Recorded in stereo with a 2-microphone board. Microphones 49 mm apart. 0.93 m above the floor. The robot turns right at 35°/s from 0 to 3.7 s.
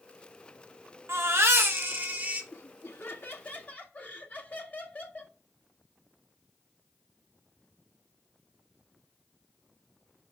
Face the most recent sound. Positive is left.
turn(degrees=145)